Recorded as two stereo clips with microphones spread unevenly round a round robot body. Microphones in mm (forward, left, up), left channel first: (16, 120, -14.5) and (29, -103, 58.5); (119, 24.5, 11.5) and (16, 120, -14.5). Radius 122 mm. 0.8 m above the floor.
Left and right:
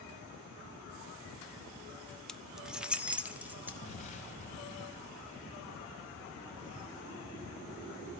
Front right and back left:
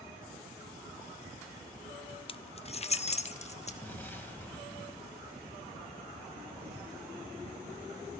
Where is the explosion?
35° left, 3 m.